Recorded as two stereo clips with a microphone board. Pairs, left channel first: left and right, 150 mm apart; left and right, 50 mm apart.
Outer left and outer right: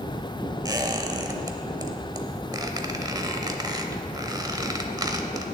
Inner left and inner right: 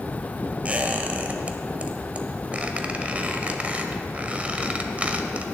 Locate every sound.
0.7 s a squeak: 25° right (ahead or behind), 0.8 m